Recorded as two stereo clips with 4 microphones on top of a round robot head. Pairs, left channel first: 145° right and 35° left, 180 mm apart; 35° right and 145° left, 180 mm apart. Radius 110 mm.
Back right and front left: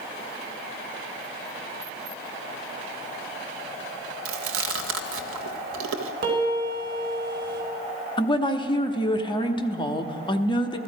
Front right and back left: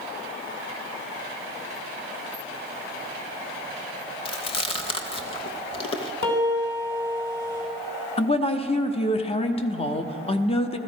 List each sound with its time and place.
4.2 s chewing: 25° left, 0.9 m
6.2 s a piano: 5° right, 3.5 m
8.2 s a woman speaking: 85° right, 1.1 m